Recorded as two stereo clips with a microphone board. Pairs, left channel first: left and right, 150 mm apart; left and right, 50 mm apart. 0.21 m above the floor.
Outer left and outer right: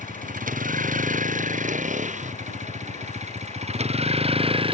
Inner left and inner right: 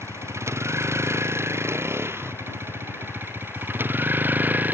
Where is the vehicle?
60° right (ahead or behind); by 4.8 s 35° right (ahead or behind).